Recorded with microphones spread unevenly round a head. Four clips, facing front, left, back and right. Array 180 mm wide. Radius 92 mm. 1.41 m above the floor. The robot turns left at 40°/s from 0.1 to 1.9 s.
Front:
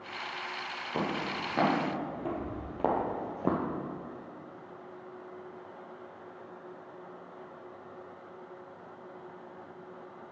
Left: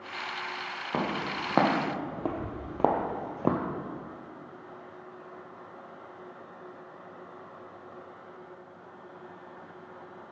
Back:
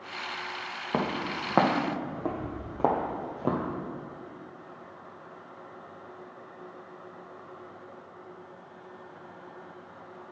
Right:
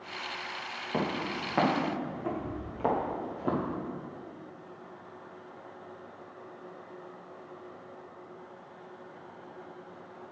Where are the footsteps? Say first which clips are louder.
Left 1 dB, back 3 dB; 175° left, 3 m; by 3.6 s 85° left, 1.5 m.